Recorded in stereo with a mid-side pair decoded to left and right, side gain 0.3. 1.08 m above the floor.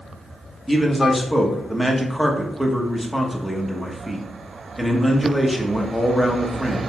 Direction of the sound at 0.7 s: 5° right.